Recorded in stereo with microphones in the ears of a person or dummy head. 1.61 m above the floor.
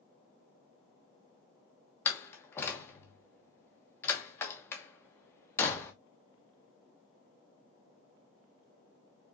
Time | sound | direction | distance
2.0 | a door slam | 10° left (ahead or behind) | 1.2 m